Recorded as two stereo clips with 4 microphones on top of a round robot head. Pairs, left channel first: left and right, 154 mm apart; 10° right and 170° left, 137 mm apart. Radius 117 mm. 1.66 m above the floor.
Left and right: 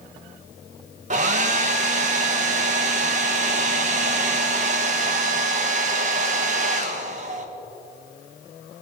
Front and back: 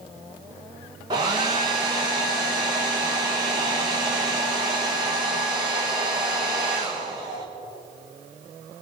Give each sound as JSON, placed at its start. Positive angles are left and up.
{"t": 1.1, "sound": "a hair dryer", "azimuth_deg": -120, "distance_m": 1.1}